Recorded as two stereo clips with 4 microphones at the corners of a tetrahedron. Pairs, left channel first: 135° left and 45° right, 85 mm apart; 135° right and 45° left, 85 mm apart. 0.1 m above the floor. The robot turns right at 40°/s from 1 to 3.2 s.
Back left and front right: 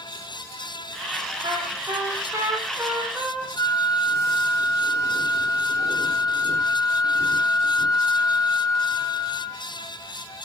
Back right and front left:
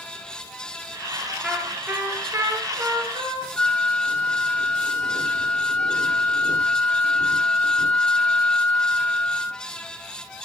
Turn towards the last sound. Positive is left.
turn(degrees=155)